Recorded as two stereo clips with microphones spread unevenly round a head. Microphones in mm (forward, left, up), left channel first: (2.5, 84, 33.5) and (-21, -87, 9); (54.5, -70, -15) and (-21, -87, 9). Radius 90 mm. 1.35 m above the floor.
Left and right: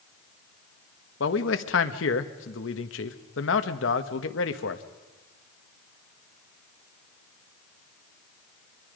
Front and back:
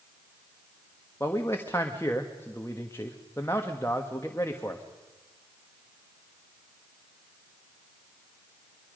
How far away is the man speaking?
About 1.4 m.